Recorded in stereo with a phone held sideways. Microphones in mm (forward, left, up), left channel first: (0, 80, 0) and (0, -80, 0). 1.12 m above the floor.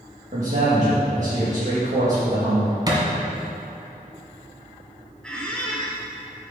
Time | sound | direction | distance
0.3 | a man speaking | 50° right (ahead or behind) | 1.7 m
2.9 | a thud | 25° right (ahead or behind) | 1.8 m
5.2 | a squeak | 5° left (ahead or behind) | 1.4 m